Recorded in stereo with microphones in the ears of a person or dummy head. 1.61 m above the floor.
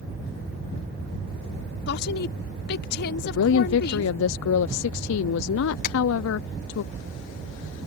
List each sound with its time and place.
1.9 s a woman speaking: 65° left (ahead or behind)
3.2 s a woman speaking: 80° left
5.8 s tapping: 50° left (ahead or behind)